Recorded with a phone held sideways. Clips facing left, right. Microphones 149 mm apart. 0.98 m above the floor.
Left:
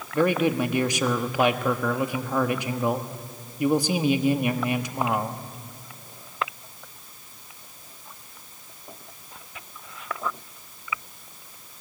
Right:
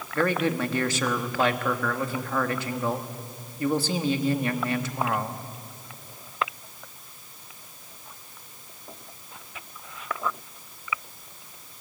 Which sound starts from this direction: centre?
A man speaking, at 0.1 s.